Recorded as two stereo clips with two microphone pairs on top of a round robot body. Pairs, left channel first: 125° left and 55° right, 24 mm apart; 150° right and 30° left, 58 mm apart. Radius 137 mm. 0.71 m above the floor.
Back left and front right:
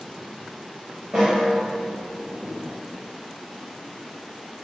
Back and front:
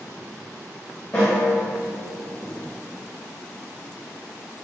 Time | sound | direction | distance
1.1 | a snare drum | 75° right | 0.5 m